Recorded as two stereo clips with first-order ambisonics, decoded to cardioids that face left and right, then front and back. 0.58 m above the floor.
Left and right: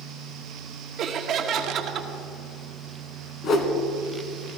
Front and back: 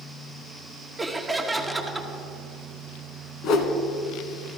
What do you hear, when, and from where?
1.0 s laughter: 100° right, 0.9 m
3.4 s a whoosh: 40° left, 1.1 m